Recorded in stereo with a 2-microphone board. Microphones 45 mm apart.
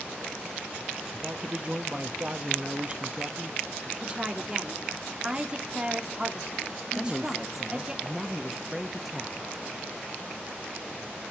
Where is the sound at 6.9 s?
Centre (ahead or behind), 0.9 m.